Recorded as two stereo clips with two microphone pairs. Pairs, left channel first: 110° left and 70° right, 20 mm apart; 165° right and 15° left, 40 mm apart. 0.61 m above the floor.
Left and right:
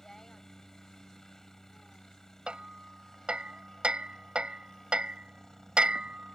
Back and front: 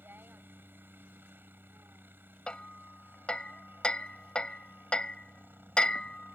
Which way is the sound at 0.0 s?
40° left.